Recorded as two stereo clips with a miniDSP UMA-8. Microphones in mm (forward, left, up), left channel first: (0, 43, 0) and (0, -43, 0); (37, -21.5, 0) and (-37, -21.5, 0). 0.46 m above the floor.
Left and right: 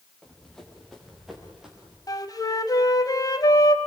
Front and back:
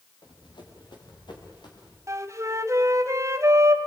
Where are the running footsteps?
10° left, 5 m; by 2.0 s 10° right, 6.5 m.